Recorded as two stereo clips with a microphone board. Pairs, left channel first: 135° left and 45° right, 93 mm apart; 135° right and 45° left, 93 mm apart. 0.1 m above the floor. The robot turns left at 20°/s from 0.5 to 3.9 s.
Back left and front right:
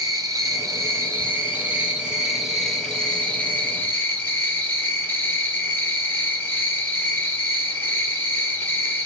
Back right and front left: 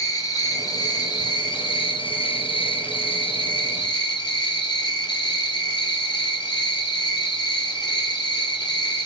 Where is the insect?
95° right, 0.9 m; by 9.1 s 165° right, 0.9 m.